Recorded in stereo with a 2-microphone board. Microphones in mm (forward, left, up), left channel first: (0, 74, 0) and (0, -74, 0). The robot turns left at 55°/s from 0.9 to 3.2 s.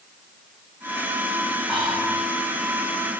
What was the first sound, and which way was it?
Whispering, 175° right.